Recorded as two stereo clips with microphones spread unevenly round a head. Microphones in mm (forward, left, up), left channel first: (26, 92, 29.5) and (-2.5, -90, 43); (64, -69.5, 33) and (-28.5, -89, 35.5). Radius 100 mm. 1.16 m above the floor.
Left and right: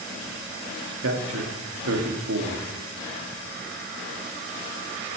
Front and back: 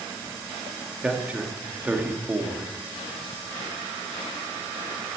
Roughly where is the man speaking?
Right.